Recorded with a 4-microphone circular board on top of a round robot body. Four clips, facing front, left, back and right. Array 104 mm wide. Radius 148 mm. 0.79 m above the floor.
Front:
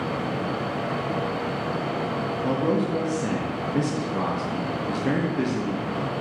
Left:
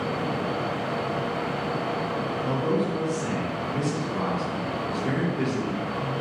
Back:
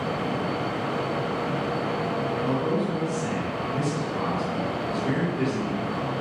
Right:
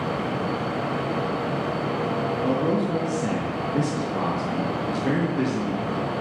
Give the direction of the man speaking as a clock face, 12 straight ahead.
1 o'clock.